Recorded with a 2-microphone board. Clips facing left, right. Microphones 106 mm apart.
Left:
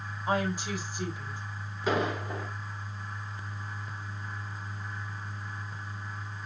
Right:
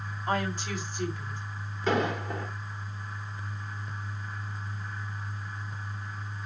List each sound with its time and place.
0.3 s a woman speaking: 15° left (ahead or behind), 4.5 m
1.9 s an explosion: 5° left (ahead or behind), 3.5 m